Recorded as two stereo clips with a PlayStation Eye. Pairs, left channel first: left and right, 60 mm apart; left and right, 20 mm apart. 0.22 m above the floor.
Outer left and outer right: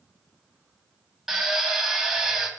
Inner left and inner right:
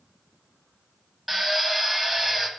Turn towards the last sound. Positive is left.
turn(degrees=-10)  # may be behind; listen again after turning